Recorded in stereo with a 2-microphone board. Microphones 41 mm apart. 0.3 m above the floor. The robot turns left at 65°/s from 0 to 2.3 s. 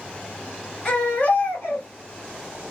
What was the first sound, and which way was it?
A baby crying, 155° left.